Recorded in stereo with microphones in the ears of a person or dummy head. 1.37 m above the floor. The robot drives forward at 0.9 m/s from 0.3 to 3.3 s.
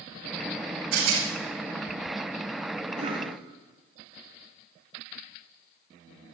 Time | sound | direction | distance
0.9 | a rattle | 75° right (ahead or behind) | 7 m
3.0 | a cough | 40° right (ahead or behind) | 3 m